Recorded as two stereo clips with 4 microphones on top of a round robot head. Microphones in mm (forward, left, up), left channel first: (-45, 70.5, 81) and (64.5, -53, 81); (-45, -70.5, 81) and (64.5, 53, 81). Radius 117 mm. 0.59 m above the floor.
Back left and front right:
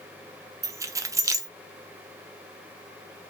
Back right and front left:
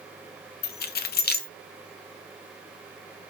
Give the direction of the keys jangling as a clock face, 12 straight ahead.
4 o'clock.